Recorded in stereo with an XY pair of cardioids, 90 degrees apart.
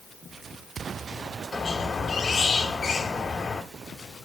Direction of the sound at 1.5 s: 45° left.